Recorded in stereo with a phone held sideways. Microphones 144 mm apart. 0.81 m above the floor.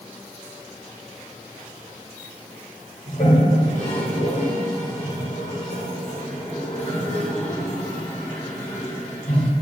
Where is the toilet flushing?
50° left (ahead or behind), 1.9 m.